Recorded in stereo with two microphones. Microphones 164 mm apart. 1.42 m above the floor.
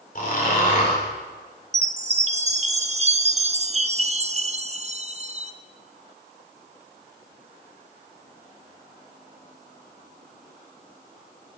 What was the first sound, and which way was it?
Snoring, 55° left (ahead or behind).